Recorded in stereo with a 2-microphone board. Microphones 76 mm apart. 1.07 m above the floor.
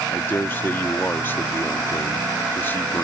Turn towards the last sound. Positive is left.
turn(degrees=25)  # may be behind; listen again after turning